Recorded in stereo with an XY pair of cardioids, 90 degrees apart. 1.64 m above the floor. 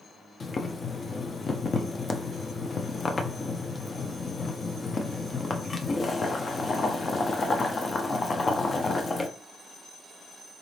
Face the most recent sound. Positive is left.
turn(degrees=40)